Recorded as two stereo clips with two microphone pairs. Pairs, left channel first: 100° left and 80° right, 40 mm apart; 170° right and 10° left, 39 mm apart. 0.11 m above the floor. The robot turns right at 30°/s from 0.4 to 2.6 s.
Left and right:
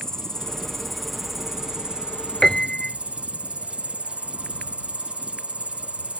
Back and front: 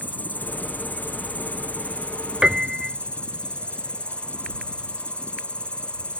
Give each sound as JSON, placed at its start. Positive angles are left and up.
{"t": 0.0, "sound": "an insect", "azimuth_deg": 175}
{"t": 2.4, "sound": "a piano", "azimuth_deg": 50}